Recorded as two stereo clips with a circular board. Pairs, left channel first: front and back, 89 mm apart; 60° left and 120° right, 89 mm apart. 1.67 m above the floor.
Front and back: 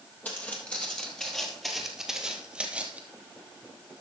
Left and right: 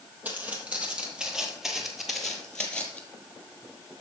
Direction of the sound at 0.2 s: 60° right.